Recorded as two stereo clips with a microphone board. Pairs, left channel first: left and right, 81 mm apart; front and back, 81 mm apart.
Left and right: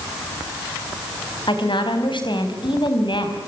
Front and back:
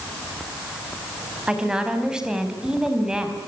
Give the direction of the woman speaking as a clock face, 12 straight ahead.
9 o'clock.